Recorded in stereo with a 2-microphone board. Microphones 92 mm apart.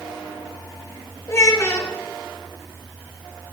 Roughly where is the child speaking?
Left.